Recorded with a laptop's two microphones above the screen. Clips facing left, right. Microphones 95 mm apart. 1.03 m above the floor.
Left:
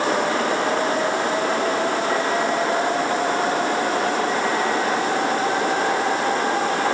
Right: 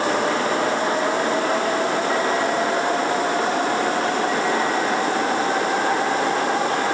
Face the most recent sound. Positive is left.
No sound to turn to.